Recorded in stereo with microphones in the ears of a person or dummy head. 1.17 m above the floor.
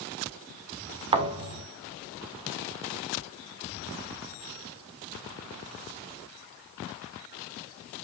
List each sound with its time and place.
1.1 s a thud: 25° right (ahead or behind), 1.2 m